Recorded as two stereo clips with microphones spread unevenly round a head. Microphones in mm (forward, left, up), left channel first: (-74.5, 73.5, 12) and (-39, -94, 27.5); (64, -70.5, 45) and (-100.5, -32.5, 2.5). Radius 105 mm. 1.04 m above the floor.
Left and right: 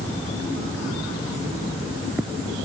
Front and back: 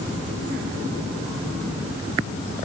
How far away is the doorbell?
No doorbell in this recording.